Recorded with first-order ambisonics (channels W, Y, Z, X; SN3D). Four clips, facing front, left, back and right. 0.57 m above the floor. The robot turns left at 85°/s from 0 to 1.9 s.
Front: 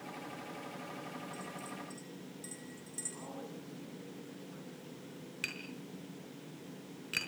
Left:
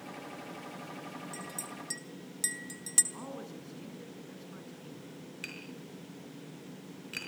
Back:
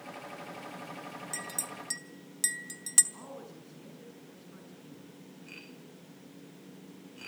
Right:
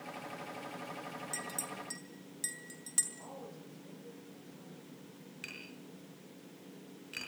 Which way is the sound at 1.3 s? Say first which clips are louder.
Right 1 dB, back 5 dB; 155° right.